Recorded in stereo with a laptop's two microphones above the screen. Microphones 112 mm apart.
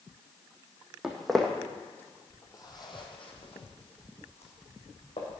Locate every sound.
1.0 s footsteps: 5° right (ahead or behind), 2.5 m; by 5.3 s 75° left (ahead or behind), 3.5 m